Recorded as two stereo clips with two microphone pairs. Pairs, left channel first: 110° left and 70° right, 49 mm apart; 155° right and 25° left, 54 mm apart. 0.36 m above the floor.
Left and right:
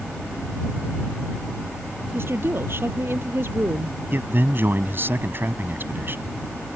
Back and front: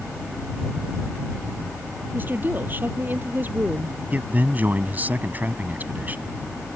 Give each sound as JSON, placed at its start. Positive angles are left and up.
{"t": 2.1, "sound": "a woman speaking", "azimuth_deg": -30}
{"t": 4.1, "sound": "a man speaking", "azimuth_deg": -30}